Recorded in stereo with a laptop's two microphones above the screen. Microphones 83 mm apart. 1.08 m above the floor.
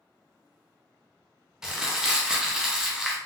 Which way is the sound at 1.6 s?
10° right (ahead or behind).